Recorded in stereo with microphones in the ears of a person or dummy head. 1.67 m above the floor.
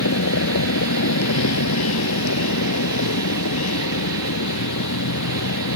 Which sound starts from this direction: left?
A vehicle, at 0.0 s.